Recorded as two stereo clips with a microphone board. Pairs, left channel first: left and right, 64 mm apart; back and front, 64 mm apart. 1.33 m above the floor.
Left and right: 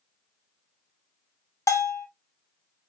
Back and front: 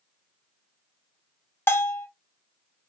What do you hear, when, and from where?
1.7 s a bell: 125° left, 0.6 m